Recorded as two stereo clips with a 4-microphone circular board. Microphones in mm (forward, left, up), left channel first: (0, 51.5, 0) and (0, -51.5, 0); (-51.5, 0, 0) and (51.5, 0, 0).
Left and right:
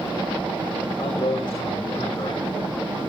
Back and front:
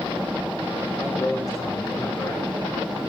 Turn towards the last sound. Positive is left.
turn(degrees=130)